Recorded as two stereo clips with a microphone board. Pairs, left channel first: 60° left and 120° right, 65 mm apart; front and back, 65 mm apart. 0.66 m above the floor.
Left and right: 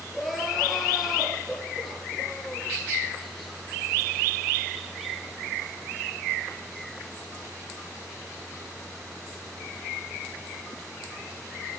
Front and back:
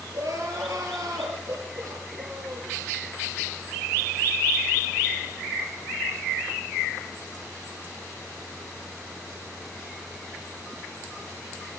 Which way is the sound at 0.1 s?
150° left.